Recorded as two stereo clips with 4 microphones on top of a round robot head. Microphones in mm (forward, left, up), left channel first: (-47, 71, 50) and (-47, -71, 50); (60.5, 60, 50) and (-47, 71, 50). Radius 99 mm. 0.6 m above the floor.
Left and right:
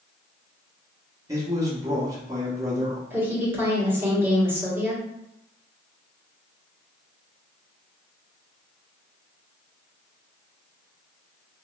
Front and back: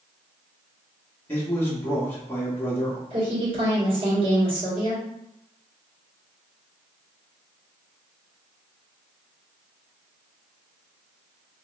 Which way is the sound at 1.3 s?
55° right.